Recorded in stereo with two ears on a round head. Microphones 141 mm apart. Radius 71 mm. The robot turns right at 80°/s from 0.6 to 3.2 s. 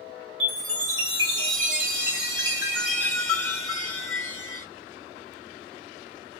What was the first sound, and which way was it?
A chime, 175° left.